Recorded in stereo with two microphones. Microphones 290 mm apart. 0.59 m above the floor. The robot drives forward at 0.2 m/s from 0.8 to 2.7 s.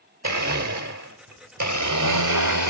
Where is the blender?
70° right (ahead or behind), 1.0 m; by 2.7 s 85° right, 0.9 m.